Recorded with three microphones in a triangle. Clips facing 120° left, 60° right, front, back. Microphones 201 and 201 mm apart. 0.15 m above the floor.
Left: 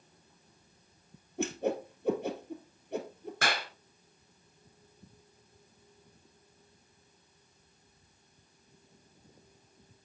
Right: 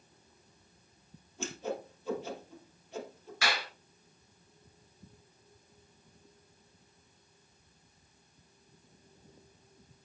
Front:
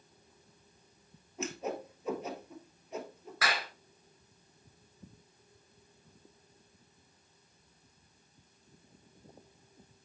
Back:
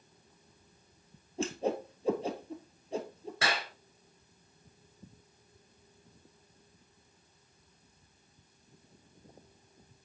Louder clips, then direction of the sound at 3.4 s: Left 1 dB, back 1 dB; 125° left.